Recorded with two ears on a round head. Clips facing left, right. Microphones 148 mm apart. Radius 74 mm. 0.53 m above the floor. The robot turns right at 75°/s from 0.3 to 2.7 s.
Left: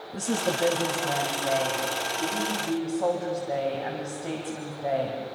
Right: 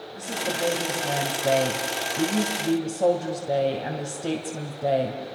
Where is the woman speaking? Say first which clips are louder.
Left 3 dB; 140° left, 2.5 m; by 5.4 s 40° right, 2.5 m.